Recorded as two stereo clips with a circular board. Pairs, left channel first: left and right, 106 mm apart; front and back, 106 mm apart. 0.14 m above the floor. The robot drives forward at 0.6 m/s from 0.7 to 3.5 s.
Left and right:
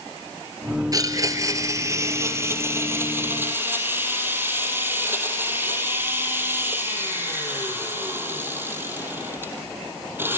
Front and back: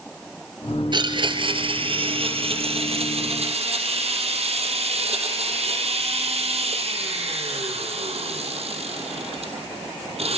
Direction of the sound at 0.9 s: 140° right.